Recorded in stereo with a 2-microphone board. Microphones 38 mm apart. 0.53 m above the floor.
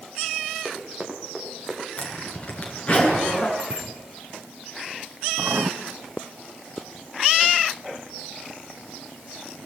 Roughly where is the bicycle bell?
Right.